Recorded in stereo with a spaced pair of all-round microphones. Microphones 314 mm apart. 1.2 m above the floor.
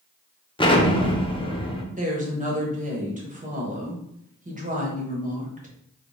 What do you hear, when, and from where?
0.6 s an explosion: 15° left (ahead or behind), 0.6 m
1.9 s a woman speaking: 25° right (ahead or behind), 1.1 m